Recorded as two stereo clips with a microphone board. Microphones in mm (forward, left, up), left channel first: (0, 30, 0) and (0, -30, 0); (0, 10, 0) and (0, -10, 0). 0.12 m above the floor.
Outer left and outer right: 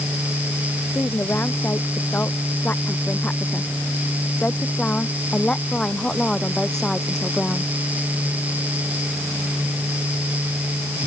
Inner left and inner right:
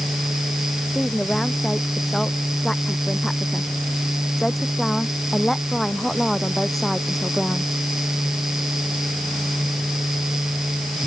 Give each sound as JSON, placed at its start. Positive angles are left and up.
{"t": 0.9, "sound": "a woman speaking", "side_deg": 35}